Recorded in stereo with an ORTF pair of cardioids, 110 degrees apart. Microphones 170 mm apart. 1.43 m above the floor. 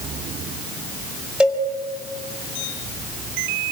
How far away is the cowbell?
About 5.5 m.